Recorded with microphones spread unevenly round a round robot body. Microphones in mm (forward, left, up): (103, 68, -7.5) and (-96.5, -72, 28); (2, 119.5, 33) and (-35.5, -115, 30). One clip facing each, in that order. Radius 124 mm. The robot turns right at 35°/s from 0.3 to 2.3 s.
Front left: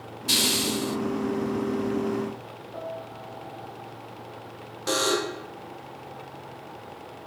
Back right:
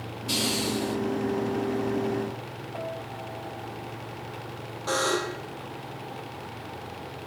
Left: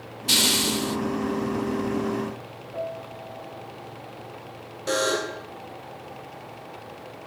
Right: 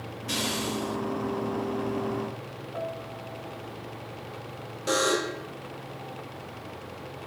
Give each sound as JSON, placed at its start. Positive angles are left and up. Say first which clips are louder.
{"t": 0.3, "sound": "a hiss", "louder": "even, left 4 dB", "azimuth_deg": 70, "distance_m": 1.0}
{"t": 2.7, "sound": "a piano", "louder": "even, left 3 dB", "azimuth_deg": 30, "distance_m": 8.5}
{"t": 4.9, "sound": "a buzzer", "louder": "front left 2 dB, left 1 dB", "azimuth_deg": -10, "distance_m": 2.0}